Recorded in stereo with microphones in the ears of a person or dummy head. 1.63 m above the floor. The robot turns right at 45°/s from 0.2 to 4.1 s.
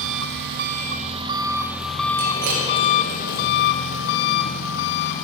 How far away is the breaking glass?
About 2.5 m.